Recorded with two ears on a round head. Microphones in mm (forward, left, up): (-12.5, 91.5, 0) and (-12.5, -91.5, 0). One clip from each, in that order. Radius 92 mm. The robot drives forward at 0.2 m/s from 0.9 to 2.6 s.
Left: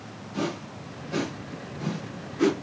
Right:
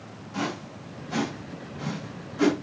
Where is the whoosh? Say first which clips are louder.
Even; 40° right (ahead or behind), 1.5 m; by 2.6 s 35° right (ahead or behind), 1.7 m.